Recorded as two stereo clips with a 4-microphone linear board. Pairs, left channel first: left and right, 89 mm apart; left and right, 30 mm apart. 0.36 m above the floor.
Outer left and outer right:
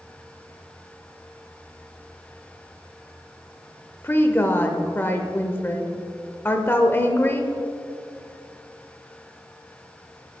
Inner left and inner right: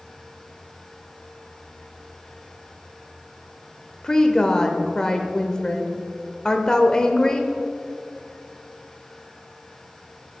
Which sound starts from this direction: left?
A woman speaking, at 4.0 s.